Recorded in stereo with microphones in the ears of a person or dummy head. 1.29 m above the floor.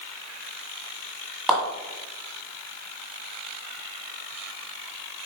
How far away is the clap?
About 2 m.